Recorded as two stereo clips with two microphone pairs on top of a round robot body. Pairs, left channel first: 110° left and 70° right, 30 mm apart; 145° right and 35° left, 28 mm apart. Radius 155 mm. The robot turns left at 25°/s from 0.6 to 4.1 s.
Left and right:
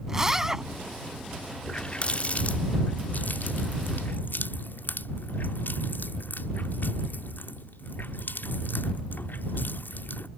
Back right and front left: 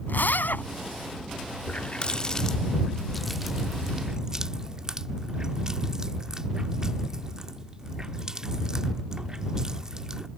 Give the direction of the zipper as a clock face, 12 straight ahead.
5 o'clock.